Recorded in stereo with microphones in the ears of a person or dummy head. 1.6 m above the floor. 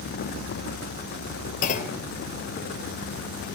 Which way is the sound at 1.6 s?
40° left (ahead or behind).